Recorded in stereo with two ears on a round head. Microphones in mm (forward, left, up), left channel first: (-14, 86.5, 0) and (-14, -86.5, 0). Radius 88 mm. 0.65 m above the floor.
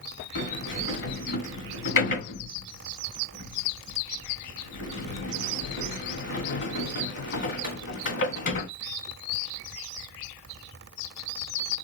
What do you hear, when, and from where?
0.3 s a sliding door: 60° left (ahead or behind), 3 m